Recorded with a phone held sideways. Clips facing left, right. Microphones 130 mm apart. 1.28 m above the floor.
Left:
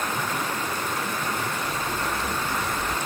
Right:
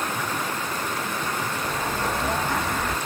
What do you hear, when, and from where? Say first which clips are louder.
1.6 s an explosion: right 2 dB; 75° right (ahead or behind)